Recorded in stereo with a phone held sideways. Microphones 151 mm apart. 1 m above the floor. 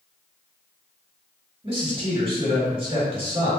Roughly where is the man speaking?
Right.